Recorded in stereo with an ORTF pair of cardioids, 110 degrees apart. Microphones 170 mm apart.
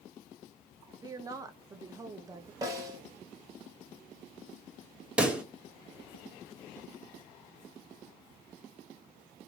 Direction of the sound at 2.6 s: 20° right.